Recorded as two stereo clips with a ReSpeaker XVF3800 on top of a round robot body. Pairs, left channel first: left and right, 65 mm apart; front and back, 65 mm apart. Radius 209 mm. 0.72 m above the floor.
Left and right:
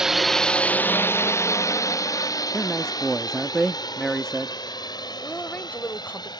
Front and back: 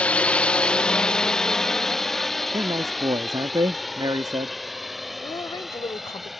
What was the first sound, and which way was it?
A drone, 25° right.